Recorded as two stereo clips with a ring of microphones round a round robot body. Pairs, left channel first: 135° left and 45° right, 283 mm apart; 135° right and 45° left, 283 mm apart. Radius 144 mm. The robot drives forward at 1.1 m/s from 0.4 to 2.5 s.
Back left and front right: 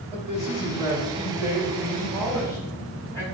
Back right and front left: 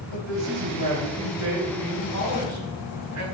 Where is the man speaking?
20° left, 3.5 m; by 3.2 s 55° left, 2.0 m.